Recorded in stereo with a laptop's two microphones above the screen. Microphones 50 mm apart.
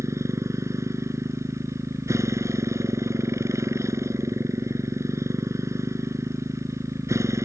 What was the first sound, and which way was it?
A motorcycle, 75° right (ahead or behind).